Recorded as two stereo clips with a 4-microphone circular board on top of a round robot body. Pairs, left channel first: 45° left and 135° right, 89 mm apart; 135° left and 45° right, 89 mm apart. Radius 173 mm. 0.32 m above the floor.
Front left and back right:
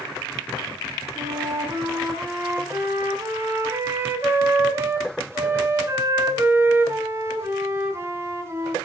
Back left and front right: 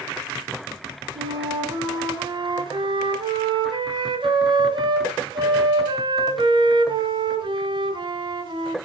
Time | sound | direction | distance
1.1 | a flute | 75° right | 3.5 m